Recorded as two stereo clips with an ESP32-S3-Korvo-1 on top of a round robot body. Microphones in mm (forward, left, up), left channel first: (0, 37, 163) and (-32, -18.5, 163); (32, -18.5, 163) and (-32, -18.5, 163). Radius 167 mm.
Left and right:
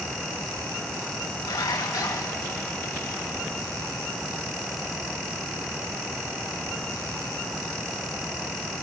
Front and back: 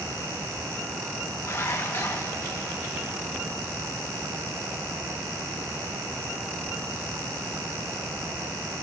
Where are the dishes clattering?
50° left, 3.5 m.